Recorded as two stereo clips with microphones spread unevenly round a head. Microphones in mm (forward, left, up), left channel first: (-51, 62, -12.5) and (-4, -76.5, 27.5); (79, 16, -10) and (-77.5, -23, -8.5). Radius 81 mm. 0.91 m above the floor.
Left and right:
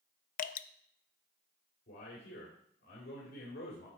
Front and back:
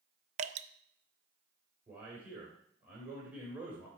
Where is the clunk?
No clunk in this recording.